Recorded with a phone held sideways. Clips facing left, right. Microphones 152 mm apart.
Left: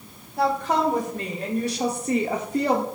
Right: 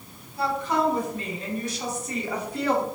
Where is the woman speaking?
70° left (ahead or behind), 3 m; by 2.9 s 30° left (ahead or behind), 1.1 m.